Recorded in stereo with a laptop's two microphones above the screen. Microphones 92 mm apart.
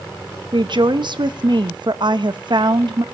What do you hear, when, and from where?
0.5 s a woman speaking: 60° right (ahead or behind), 0.8 m